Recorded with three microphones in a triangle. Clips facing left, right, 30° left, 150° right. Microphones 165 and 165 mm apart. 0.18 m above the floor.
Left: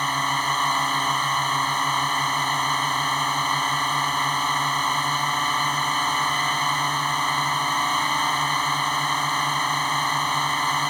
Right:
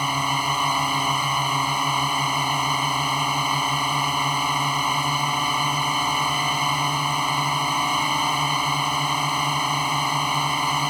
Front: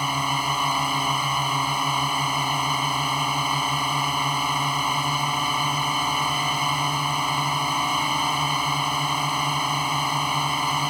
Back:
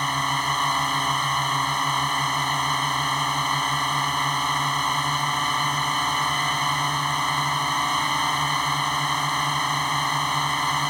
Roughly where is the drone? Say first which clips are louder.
Right 1 dB, front 1 dB; ahead right.